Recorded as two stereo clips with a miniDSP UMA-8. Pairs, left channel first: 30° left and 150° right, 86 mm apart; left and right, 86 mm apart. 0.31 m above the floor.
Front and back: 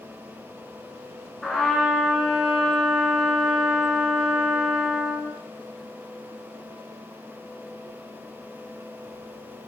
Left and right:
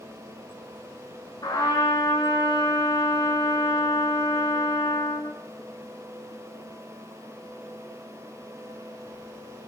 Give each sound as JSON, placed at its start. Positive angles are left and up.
{"t": 1.4, "sound": "a trumpet", "azimuth_deg": 120, "distance_m": 1.3}